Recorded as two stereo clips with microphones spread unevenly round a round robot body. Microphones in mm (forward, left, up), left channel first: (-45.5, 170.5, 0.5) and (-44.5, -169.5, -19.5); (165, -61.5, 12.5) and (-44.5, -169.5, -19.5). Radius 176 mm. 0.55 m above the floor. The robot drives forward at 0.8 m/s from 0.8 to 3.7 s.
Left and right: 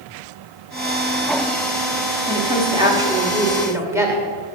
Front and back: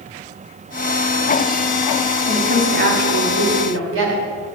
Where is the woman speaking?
150° right, 1.1 m; by 4.2 s 170° right, 1.9 m.